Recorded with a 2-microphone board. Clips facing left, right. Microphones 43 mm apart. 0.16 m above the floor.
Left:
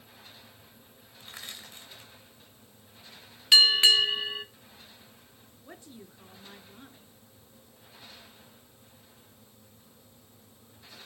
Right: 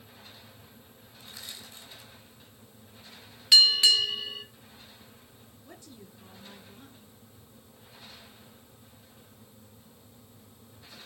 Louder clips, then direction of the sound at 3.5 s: Left 1 dB; 35° left (ahead or behind).